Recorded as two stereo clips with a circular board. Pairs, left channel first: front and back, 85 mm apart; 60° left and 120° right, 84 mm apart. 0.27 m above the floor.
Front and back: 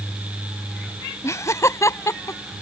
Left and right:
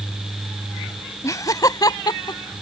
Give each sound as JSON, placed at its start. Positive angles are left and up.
{"t": 1.2, "sound": "laughter", "azimuth_deg": 35}